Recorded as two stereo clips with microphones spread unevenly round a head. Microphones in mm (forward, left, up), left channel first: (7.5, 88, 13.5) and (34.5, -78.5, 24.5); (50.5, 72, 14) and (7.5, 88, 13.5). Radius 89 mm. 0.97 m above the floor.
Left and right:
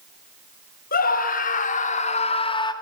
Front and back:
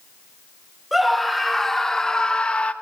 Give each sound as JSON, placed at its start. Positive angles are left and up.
{"t": 0.9, "sound": "a scream", "azimuth_deg": 70, "distance_m": 4.0}